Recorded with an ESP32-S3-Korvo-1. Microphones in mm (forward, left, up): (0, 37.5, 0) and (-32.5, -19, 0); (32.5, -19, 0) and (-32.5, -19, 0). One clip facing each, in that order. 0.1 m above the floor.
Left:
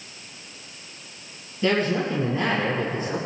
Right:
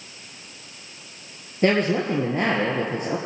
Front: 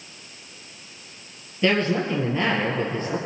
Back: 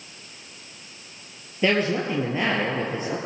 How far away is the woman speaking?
About 1.9 m.